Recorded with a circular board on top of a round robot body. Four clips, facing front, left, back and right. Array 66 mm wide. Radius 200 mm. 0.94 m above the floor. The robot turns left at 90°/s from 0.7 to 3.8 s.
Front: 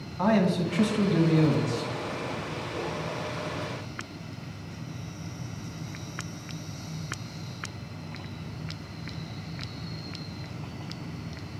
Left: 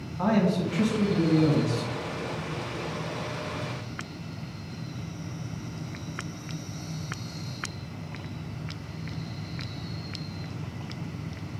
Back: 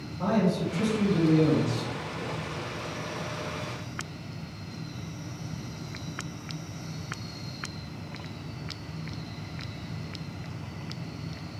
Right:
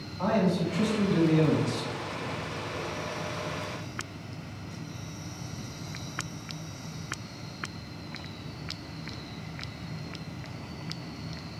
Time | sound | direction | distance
0.2 | a man speaking | 15° left | 1.1 m